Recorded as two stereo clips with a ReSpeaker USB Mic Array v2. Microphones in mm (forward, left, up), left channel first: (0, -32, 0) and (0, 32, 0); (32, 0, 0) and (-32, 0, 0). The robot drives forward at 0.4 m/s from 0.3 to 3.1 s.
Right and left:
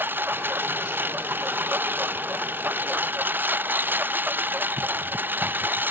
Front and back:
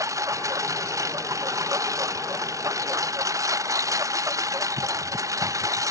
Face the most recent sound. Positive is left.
turn(degrees=150)